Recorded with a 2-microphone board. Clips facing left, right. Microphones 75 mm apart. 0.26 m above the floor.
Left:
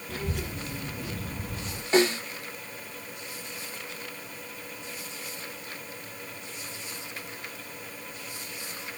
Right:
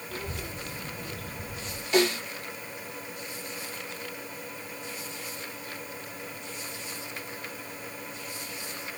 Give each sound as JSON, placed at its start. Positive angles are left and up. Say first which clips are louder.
{"t": 0.1, "sound": "a child speaking", "louder": "left 4 dB", "side_deg": 60, "distance_m": 3.5}
{"t": 1.9, "sound": "a snare drum", "louder": "left 2 dB", "side_deg": 35, "distance_m": 4.5}